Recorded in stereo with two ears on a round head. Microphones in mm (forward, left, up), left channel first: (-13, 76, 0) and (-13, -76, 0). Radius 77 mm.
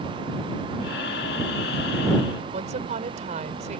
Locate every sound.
0.8 s breathing: 65° left (ahead or behind)
2.5 s a woman speaking: 45° right (ahead or behind)